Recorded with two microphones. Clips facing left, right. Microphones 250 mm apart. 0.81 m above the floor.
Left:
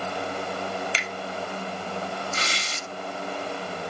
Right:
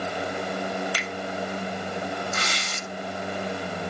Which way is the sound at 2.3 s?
35° left (ahead or behind).